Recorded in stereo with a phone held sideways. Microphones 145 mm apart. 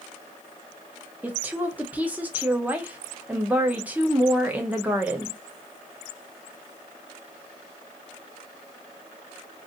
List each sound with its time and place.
1.2 s a woman speaking: 10° right (ahead or behind), 0.9 m